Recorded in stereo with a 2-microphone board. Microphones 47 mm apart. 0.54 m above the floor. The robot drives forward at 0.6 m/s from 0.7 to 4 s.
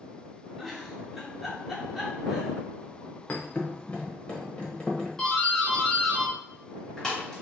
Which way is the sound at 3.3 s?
40° left (ahead or behind).